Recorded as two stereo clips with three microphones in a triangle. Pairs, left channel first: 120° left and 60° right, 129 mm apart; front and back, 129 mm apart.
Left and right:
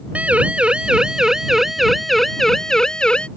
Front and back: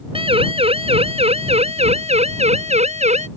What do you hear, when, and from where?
0.1 s a siren: 140° right; by 3.3 s 160° right